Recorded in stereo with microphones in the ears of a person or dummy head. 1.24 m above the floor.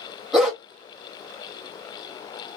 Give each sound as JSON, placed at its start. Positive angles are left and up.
{"t": 0.3, "sound": "a dog barking", "side_deg": 5, "distance_m": 0.8}